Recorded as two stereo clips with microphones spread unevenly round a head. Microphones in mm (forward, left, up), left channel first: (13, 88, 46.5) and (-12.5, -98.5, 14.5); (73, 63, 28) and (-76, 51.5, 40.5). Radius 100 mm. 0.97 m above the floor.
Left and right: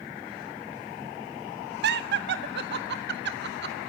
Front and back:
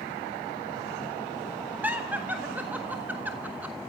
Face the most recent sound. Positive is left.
turn(degrees=-95)